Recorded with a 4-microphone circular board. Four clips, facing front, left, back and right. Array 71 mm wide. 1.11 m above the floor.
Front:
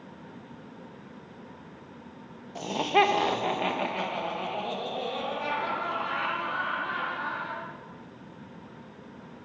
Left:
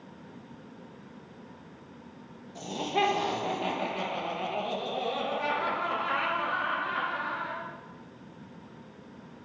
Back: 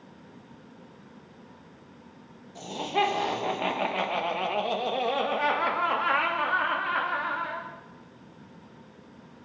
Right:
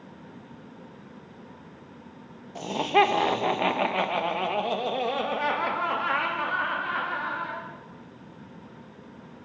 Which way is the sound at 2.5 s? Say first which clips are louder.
Right 7 dB, front 4 dB; 55° right.